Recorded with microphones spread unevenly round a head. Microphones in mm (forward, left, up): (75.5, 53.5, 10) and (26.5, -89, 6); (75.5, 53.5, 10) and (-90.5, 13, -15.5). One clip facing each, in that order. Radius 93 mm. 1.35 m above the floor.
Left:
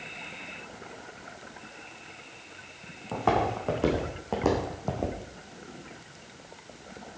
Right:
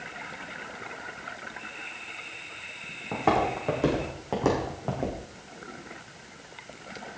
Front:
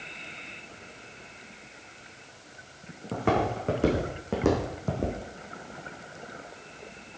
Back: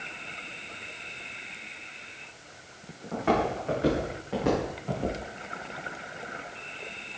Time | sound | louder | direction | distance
3.1 | footsteps | right 1 dB, even | 25° right | 5.5 m